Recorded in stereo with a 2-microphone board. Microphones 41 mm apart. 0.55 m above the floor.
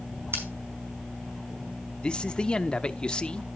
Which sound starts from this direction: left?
A man speaking, at 2.0 s.